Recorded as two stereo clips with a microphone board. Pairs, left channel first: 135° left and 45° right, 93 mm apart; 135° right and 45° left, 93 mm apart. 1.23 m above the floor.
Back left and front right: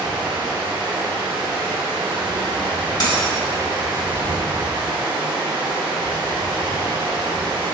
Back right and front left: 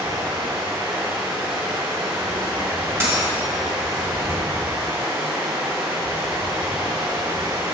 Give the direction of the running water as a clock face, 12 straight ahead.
12 o'clock.